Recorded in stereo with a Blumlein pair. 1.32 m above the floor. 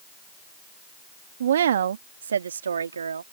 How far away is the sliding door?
I don't hear a sliding door.